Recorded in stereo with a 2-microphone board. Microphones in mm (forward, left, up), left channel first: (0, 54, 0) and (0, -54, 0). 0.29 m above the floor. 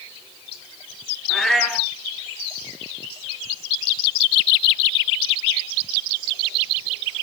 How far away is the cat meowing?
About 2 m.